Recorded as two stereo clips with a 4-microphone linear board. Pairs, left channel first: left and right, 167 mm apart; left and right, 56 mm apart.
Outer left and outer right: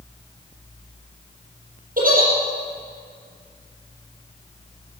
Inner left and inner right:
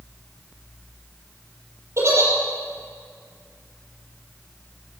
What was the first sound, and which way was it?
A giggle, 55° right (ahead or behind).